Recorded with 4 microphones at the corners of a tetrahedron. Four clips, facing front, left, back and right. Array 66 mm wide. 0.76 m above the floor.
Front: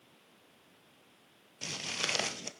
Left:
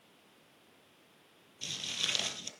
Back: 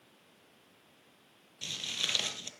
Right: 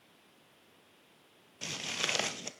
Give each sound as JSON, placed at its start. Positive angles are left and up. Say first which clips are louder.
{"t": 1.6, "sound": "footsteps", "louder": "right 2 dB, even", "azimuth_deg": -55, "distance_m": 1.0}